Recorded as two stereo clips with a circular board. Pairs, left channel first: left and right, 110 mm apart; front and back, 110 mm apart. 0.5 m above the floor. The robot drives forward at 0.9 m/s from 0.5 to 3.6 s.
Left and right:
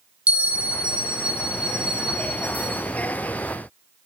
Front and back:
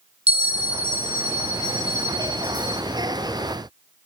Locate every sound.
0.3 s a bell: 165° right, 3 m; by 2.8 s 170° right, 5 m